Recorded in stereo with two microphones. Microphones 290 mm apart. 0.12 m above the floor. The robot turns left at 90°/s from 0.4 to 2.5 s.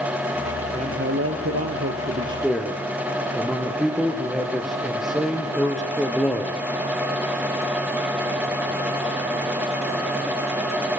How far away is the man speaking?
About 3 m.